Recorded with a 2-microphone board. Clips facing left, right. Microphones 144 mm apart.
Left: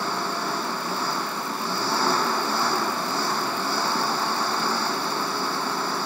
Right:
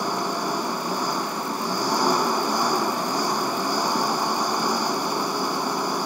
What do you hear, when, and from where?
0.0 s an engine running: 15° right (ahead or behind)